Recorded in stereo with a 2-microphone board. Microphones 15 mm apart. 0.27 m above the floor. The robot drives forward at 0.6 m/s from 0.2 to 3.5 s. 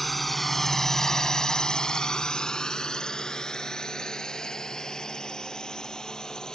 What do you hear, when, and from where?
0.0 s a drone: 10° left (ahead or behind); by 6.6 s 45° left (ahead or behind)